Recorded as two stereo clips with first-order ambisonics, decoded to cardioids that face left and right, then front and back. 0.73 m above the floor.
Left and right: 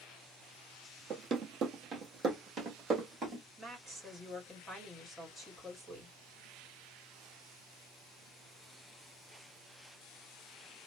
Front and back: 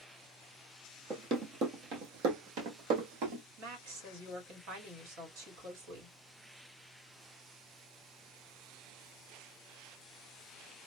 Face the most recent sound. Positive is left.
turn(degrees=-175)